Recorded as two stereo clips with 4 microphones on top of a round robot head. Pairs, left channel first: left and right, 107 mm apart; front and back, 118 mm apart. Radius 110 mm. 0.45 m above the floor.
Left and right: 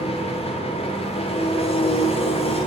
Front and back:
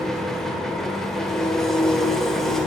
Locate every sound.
0.0 s an engine running: 85° left, 1.5 m